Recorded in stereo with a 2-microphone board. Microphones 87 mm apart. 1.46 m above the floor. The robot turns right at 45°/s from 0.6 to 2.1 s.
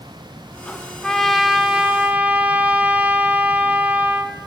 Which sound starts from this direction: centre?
A trumpet, at 1.0 s.